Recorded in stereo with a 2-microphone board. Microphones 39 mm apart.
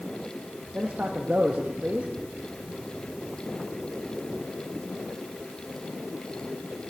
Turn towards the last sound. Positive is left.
turn(degrees=-40)  # may be behind; listen again after turning